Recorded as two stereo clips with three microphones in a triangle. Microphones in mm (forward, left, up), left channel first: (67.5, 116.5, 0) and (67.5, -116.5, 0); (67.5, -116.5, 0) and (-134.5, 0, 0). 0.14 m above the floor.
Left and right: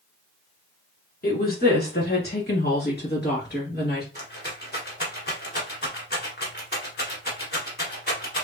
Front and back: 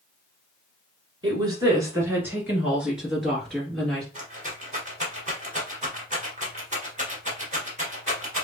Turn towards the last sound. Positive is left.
turn(degrees=110)